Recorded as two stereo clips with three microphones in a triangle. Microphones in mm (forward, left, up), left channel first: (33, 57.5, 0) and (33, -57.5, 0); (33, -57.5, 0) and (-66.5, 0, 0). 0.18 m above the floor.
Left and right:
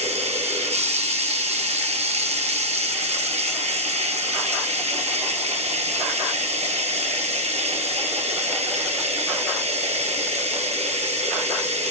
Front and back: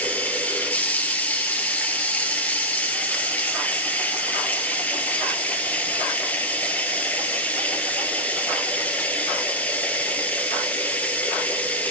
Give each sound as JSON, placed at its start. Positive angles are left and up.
{"t": 0.0, "sound": "running water", "azimuth_deg": -105, "distance_m": 1.6}